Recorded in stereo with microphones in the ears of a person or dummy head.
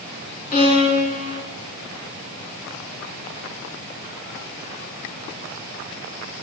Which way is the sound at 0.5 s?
45° left (ahead or behind).